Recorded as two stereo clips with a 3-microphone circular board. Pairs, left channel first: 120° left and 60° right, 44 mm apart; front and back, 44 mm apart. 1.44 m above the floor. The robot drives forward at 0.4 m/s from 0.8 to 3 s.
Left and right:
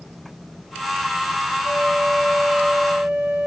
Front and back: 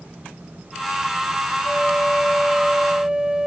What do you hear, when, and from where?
1.6 s a flute: 100° right, 2.5 m; by 3.5 s 110° right, 2.5 m